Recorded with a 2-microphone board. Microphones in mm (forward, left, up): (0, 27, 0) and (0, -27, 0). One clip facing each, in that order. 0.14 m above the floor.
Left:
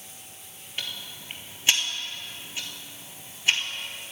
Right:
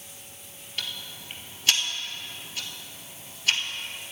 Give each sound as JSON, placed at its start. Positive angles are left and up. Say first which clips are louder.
{"t": 0.8, "sound": "ticking", "louder": "even", "side_deg": 25, "distance_m": 1.1}